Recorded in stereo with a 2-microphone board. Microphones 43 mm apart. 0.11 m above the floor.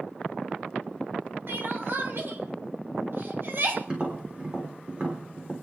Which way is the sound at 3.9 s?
30° right (ahead or behind).